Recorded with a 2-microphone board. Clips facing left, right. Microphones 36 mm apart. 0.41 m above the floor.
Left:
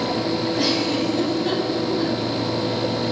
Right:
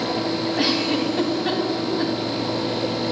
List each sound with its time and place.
0.6 s a giggle: 25° right (ahead or behind), 3 m